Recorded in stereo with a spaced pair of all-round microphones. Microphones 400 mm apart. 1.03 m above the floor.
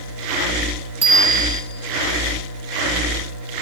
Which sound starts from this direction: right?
A bicycle bell, at 1.0 s.